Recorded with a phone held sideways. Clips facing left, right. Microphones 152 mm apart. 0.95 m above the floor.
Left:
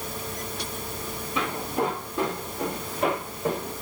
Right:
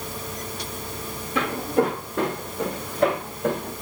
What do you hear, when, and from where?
1.4 s footsteps: 70° right (ahead or behind), 4 m; by 3.7 s 65° right (ahead or behind), 5 m